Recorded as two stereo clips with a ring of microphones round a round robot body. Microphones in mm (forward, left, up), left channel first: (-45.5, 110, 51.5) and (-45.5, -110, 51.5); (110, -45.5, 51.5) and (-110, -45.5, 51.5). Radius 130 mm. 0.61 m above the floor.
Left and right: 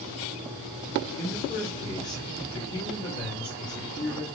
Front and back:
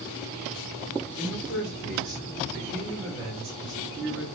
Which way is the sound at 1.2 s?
160° left.